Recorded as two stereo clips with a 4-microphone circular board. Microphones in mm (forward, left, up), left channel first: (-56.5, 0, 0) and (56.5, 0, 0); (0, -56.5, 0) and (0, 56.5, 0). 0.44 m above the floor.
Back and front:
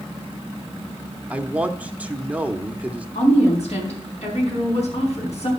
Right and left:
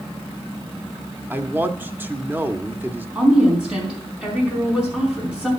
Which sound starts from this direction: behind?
A woman speaking, at 3.1 s.